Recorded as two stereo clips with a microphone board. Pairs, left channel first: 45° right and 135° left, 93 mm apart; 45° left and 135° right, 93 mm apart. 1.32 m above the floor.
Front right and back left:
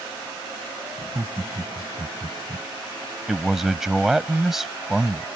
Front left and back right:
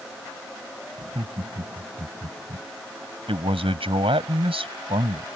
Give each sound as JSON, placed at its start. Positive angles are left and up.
{"t": 1.0, "sound": "laughter", "azimuth_deg": -155}
{"t": 3.3, "sound": "a man speaking", "azimuth_deg": -140}